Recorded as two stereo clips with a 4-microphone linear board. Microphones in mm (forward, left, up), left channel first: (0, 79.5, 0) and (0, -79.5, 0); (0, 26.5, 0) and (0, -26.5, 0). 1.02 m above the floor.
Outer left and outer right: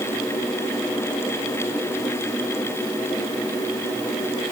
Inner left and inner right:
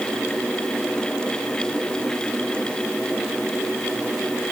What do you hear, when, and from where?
Only background noise.